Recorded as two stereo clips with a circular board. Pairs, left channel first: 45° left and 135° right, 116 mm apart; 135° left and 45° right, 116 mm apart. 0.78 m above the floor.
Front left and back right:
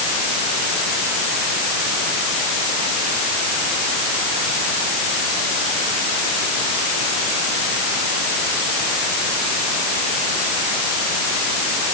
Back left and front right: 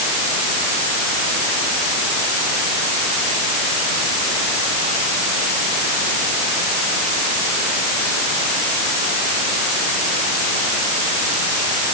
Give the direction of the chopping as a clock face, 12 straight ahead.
No chopping in this recording.